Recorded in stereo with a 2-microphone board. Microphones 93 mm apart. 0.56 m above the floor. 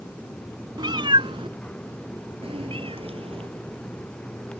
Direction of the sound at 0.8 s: 55° right (ahead or behind).